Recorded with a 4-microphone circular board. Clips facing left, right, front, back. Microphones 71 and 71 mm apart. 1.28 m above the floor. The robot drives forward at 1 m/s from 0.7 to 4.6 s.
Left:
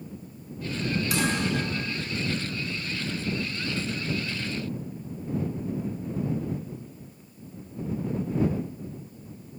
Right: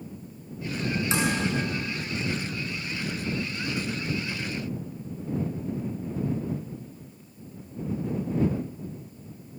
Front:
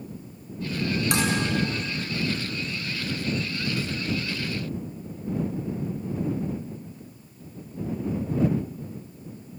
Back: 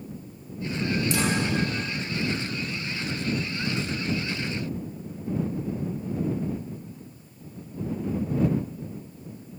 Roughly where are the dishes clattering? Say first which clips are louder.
Right 1 dB, front 2 dB; ahead right.